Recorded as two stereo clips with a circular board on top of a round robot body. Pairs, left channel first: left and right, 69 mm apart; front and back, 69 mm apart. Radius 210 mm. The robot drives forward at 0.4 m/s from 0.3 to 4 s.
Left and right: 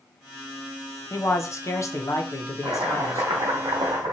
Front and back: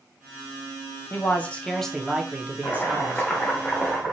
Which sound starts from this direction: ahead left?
A man speaking, at 1.1 s.